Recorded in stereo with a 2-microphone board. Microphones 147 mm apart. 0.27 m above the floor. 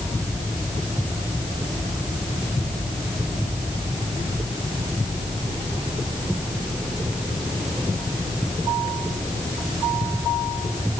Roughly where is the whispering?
I don't hear whispering.